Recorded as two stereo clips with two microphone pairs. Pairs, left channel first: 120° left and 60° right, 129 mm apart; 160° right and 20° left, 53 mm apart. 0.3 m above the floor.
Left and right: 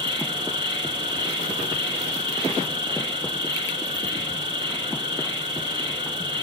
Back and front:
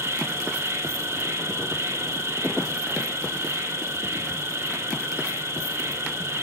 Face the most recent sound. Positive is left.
turn(degrees=-5)